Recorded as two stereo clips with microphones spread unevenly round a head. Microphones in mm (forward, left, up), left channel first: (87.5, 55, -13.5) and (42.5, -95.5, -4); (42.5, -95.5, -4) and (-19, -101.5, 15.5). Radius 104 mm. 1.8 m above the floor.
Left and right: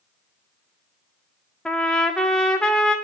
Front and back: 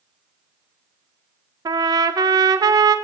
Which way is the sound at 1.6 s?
160° left.